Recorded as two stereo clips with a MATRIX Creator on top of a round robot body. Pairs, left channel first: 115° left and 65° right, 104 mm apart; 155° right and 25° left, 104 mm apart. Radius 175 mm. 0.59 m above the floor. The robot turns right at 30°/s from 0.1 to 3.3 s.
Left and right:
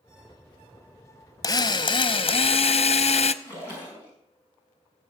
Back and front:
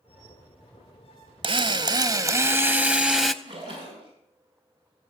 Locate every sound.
1.4 s a drill: 55° left, 0.7 m; by 3.3 s 115° left, 0.7 m
3.4 s a splash: 45° left, 6.5 m